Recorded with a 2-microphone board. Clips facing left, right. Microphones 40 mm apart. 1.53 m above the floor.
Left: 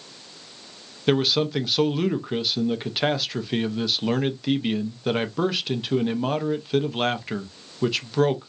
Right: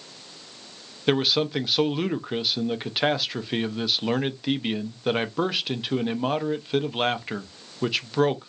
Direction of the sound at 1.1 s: 5° right (ahead or behind).